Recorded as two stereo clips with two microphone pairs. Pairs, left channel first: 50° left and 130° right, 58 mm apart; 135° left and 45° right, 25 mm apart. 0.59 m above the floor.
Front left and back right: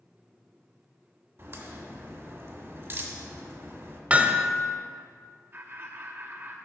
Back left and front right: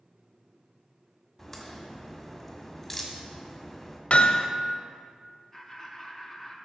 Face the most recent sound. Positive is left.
turn(degrees=-145)